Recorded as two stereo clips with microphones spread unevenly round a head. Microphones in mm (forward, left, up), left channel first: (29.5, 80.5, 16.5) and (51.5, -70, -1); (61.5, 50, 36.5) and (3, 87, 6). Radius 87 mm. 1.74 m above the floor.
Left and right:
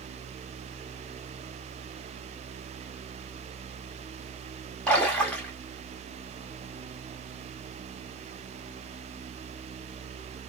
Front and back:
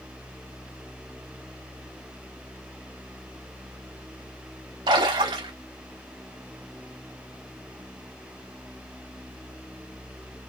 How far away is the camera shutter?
I don't hear a camera shutter.